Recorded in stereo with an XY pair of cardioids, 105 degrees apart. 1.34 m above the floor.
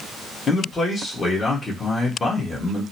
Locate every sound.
0.5 s a man speaking: 35° left, 1.5 m